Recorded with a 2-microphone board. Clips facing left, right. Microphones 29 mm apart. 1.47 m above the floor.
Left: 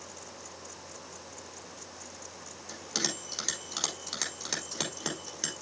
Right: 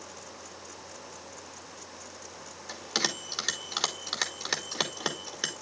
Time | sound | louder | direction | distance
2.7 | a bell | right 4 dB | 30° right (ahead or behind) | 2.5 m